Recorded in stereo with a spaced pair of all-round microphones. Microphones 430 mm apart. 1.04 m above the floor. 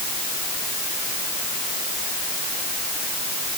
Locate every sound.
Only background noise.